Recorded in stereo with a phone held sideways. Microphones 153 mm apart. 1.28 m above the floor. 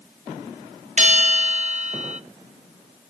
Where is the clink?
I don't hear a clink.